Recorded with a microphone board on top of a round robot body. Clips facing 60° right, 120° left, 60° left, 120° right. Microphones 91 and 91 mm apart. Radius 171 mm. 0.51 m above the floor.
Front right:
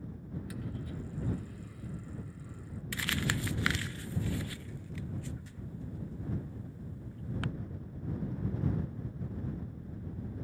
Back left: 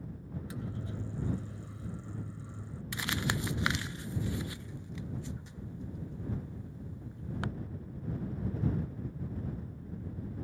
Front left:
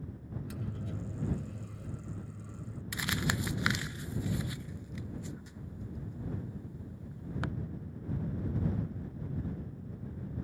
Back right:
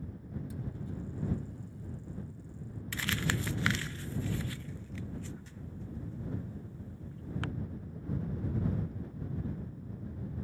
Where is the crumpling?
100° left.